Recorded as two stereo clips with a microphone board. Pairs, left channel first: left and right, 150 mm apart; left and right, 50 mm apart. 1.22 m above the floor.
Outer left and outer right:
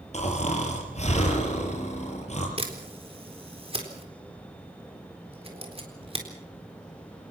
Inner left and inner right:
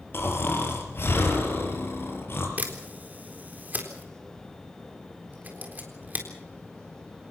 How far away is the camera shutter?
About 3.5 m.